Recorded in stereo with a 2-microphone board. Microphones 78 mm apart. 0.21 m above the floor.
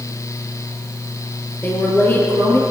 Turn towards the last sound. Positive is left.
turn(degrees=25)  # may be behind; listen again after turning